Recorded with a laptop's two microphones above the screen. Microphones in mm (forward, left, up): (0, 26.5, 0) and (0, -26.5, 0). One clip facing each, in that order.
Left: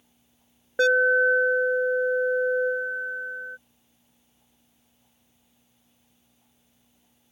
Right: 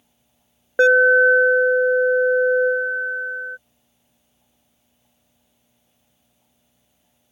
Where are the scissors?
I don't hear scissors.